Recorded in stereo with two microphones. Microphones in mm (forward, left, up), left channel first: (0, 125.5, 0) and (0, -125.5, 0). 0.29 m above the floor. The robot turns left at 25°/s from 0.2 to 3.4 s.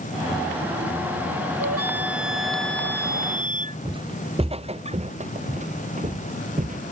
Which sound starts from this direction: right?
A flute, at 1.6 s.